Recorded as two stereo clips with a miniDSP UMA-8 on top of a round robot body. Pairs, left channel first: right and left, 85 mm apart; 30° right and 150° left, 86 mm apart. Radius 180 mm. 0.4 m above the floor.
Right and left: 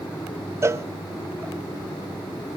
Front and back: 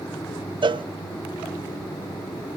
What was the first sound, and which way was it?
A cowbell, 145° left.